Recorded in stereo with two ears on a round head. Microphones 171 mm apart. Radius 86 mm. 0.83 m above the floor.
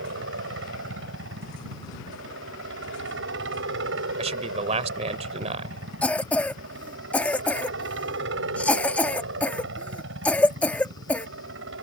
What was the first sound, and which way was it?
A helicopter, 70° right (ahead or behind).